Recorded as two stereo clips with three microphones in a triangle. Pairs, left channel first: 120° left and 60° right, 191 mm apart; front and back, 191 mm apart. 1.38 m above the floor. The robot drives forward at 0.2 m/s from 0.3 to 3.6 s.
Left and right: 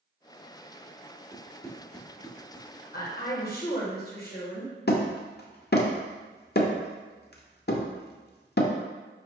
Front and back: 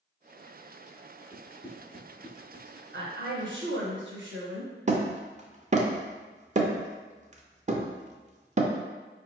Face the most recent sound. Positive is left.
turn(degrees=135)